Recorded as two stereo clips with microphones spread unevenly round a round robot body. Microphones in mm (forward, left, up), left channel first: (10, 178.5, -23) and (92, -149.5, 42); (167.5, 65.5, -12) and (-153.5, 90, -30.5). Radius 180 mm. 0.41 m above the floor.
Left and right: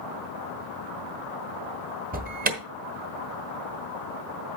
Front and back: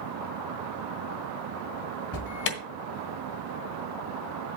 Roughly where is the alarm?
Ahead.